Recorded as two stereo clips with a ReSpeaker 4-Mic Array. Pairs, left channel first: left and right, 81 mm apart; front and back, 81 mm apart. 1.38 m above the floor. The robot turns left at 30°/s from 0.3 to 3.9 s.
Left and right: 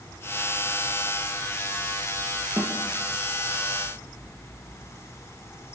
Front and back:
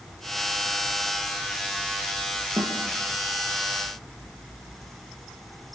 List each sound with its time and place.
2.6 s a snare drum: 150° right, 2 m; by 2.8 s 160° right, 2 m